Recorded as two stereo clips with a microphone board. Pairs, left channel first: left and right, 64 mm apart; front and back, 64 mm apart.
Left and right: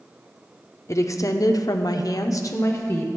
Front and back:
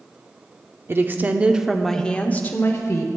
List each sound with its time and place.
0.9 s a woman speaking: 130° left, 0.8 m; by 3.1 s 40° left, 0.9 m